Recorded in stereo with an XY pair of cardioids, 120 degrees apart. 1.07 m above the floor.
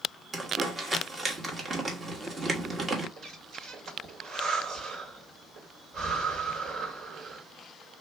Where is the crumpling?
30° right, 1.4 m.